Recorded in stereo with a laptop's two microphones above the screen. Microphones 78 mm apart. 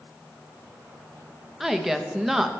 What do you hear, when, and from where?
1.6 s a woman speaking: 5° right (ahead or behind), 0.7 m